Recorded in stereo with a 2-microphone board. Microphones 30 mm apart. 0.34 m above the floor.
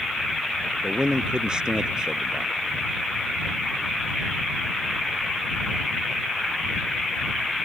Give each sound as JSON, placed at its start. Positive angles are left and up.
{"t": 0.8, "sound": "a man speaking", "side_deg": -30}